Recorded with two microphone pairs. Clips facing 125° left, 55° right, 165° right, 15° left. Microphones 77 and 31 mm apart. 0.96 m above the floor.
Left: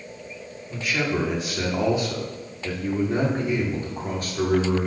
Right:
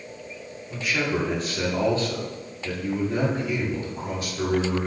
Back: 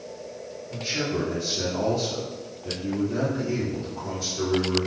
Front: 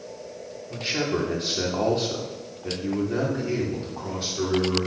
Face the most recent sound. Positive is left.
turn(degrees=80)